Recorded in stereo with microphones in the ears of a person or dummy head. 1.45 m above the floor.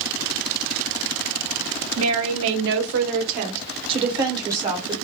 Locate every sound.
2.0 s a woman speaking: 90° right, 1.0 m; by 5.0 s 15° right (ahead or behind), 1.7 m